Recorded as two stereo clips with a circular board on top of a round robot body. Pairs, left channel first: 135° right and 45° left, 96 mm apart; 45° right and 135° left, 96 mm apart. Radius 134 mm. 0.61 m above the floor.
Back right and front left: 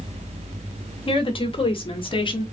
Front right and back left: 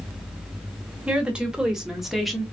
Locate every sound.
1.1 s a woman speaking: 145° right, 2.5 m; by 2.4 s 135° right, 1.8 m